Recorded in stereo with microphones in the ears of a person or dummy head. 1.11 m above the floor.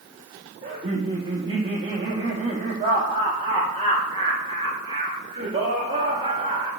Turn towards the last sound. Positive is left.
turn(degrees=-35)  # may be behind; listen again after turning